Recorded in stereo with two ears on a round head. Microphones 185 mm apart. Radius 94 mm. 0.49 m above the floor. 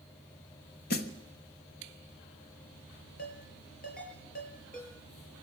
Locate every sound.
0.9 s a snare drum: 50° left (ahead or behind), 1.3 m
3.2 s a ringtone: 50° left (ahead or behind), 7 m